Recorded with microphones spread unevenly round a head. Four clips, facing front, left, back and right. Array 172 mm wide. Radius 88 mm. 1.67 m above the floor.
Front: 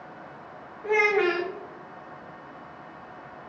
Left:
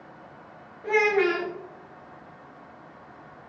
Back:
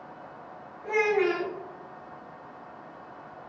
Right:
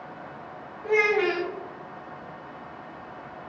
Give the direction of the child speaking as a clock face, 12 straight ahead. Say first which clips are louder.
Left 1 dB, front 2 dB; 11 o'clock.